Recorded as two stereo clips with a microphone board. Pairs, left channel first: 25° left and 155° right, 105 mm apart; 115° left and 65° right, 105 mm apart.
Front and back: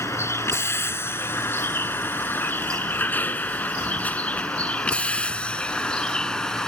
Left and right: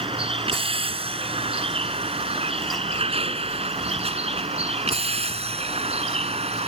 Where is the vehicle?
40° right; by 6.7 s 60° right.